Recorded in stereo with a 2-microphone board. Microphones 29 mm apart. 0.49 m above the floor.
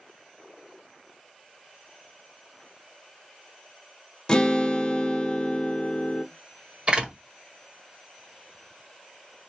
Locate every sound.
4.3 s a guitar: 25° left (ahead or behind), 0.7 m
6.9 s a door slam: 40° right (ahead or behind), 1.5 m